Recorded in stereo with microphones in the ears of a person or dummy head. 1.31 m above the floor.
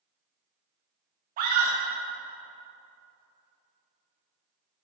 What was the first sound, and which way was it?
A scream, 45° right (ahead or behind).